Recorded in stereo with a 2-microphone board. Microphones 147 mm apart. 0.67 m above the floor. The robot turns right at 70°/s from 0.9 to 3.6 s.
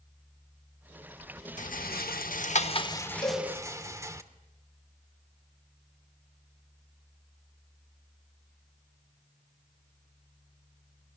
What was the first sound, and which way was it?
A rattle, 60° left (ahead or behind).